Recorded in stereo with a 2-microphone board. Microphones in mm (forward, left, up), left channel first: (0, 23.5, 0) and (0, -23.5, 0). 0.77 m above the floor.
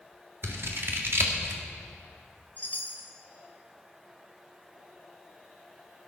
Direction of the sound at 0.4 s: 55° right (ahead or behind).